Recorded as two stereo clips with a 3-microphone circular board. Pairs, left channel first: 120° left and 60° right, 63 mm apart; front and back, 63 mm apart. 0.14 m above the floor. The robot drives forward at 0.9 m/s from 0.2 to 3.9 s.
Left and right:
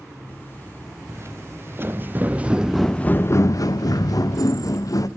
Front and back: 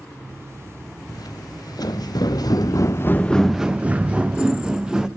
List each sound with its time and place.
1.1 s footsteps: 15° right, 2 m; by 5.1 s 100° left, 1.6 m